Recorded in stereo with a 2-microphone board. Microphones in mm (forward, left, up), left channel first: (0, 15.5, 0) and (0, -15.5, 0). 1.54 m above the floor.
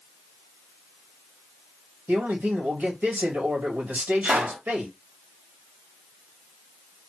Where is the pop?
75° right (ahead or behind), 1.2 m.